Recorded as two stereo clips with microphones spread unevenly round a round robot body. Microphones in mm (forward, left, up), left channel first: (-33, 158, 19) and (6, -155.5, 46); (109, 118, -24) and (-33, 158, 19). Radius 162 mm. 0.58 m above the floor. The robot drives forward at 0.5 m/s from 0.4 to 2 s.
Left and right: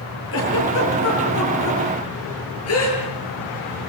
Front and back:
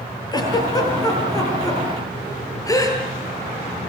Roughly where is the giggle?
Ahead left.